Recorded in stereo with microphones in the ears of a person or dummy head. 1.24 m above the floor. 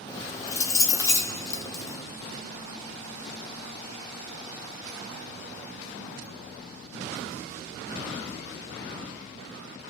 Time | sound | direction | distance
0.1 | keys jangling | 20° left (ahead or behind) | 1.0 m